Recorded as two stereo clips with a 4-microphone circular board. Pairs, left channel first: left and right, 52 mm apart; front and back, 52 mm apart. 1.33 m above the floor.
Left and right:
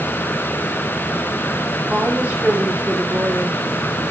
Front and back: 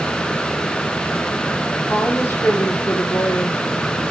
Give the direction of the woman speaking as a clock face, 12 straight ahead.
1 o'clock.